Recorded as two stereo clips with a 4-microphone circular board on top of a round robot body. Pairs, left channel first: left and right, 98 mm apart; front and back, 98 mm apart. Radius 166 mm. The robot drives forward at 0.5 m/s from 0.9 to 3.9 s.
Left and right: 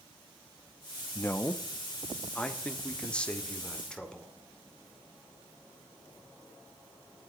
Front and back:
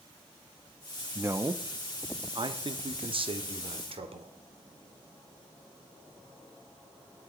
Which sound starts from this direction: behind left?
A man speaking, at 1.1 s.